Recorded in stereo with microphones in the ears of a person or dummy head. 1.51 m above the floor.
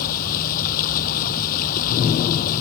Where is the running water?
45° left (ahead or behind).